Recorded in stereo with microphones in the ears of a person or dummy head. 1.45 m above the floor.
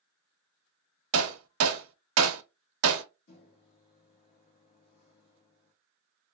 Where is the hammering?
85° right, 0.5 m.